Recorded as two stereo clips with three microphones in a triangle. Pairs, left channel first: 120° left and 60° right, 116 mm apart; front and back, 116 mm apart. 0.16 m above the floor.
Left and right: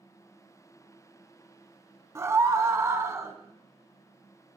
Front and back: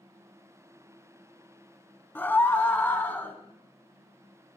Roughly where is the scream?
Ahead right.